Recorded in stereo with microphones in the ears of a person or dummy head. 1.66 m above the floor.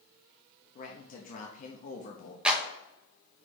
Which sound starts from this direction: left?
A man speaking, at 0.8 s.